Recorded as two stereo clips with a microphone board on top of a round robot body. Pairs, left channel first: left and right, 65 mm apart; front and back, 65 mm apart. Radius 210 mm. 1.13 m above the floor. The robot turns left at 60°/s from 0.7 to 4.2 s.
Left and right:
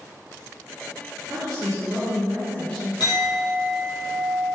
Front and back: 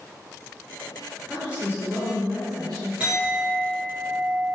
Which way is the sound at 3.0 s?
105° left.